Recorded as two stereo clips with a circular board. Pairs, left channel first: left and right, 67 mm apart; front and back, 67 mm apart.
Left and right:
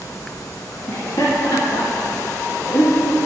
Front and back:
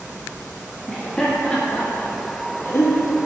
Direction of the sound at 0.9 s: 85° left.